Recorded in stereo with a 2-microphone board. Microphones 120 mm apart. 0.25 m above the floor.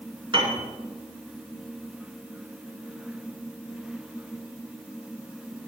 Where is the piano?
45° right (ahead or behind), 2.5 m.